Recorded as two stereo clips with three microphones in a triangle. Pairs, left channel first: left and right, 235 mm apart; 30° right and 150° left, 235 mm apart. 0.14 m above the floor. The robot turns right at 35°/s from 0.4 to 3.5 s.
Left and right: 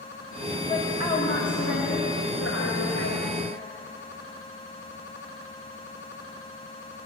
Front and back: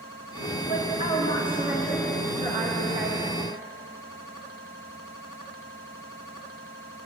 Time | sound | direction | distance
0.7 | a woman speaking | 25° left | 8.5 m